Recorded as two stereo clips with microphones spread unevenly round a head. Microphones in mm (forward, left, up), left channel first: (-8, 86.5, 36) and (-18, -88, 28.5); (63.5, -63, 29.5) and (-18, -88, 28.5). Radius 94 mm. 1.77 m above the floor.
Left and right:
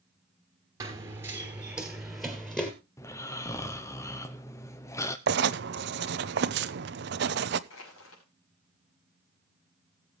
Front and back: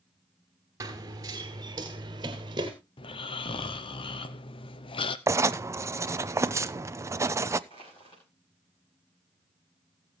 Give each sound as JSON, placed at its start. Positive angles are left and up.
{"t": 0.8, "sound": "running footsteps", "azimuth_deg": -155, "distance_m": 2.0}
{"t": 3.0, "sound": "snoring", "azimuth_deg": 15, "distance_m": 0.8}
{"t": 5.3, "sound": "writing", "azimuth_deg": -110, "distance_m": 0.7}
{"t": 7.7, "sound": "crushing", "azimuth_deg": 75, "distance_m": 6.0}